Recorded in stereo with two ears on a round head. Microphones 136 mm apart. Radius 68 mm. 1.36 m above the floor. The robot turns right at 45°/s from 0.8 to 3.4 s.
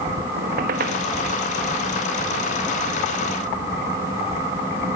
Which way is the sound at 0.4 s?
60° right (ahead or behind).